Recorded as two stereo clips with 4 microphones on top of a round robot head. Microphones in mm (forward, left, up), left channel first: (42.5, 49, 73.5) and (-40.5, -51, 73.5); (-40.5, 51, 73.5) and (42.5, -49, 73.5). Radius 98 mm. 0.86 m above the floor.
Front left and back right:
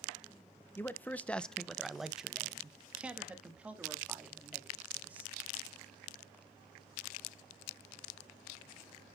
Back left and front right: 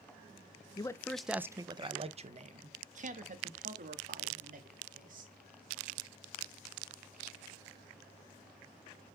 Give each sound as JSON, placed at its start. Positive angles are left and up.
{"t": 0.8, "sound": "a man speaking", "azimuth_deg": 110, "distance_m": 0.7}